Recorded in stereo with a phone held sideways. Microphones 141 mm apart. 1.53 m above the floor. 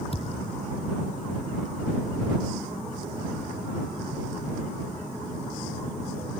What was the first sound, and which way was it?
A thud, 45° left (ahead or behind).